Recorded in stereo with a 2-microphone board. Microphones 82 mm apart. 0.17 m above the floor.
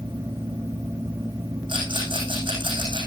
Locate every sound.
1.7 s a rattle: 80° right, 9 m